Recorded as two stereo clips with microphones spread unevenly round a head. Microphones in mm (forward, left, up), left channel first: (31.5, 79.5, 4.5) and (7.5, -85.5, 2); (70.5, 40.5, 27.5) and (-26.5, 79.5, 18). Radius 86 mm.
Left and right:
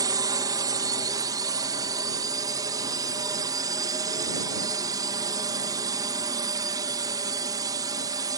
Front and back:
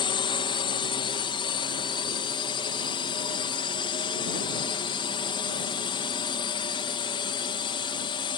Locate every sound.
0.0 s a drone: 40° right